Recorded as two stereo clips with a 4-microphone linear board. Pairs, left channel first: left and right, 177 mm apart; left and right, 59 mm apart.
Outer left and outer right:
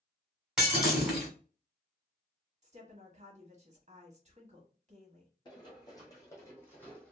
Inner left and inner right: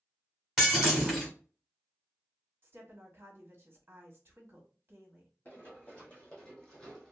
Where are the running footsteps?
25° left (ahead or behind), 2.5 m; by 7.1 s 5° left (ahead or behind), 1.8 m.